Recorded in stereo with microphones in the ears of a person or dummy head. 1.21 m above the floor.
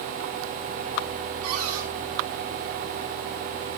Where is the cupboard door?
80° right, 7.5 m.